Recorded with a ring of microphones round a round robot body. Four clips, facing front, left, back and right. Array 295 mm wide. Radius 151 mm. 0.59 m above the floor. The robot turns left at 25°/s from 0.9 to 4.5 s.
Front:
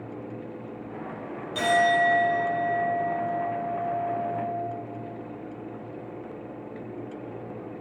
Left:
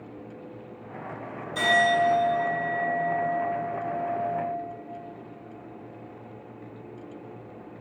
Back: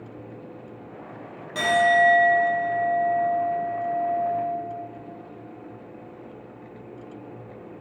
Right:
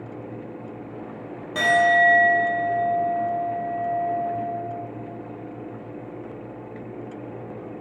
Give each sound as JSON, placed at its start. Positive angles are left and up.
{"t": 1.6, "sound": "a clink", "azimuth_deg": -100, "distance_m": 1.9}